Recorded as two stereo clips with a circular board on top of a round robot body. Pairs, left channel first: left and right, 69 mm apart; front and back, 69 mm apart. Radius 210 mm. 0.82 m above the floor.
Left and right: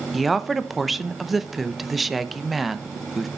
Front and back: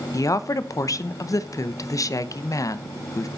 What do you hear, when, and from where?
0.1 s a woman speaking: straight ahead, 1.0 m